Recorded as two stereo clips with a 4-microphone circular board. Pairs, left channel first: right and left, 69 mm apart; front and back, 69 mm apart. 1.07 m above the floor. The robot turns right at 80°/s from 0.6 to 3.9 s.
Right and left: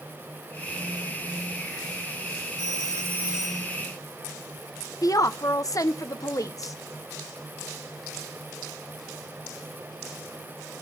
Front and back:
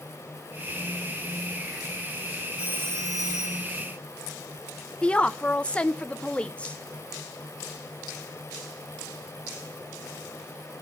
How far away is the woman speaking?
About 0.9 m.